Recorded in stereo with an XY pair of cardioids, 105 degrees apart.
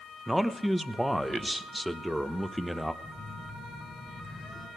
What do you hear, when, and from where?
0.3 s a man speaking: 5° right, 1.0 m
3.0 s a phone buzzing: 20° left, 4 m